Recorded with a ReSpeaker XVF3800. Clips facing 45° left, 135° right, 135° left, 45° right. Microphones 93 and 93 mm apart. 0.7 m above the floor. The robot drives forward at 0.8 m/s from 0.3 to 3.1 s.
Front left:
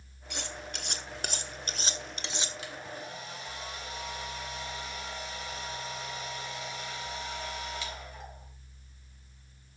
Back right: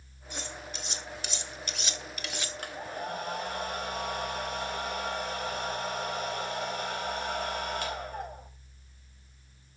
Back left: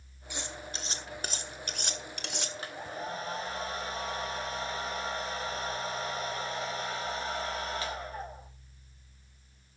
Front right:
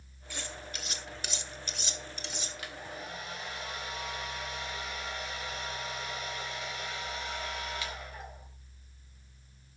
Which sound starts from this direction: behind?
A hair dryer, at 2.6 s.